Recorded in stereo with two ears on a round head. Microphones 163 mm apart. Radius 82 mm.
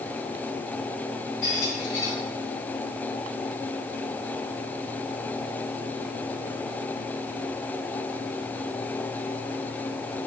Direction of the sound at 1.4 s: 65° left (ahead or behind).